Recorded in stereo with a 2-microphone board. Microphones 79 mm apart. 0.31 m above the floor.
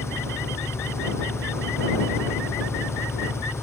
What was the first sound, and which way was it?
An engine running, 35° left (ahead or behind).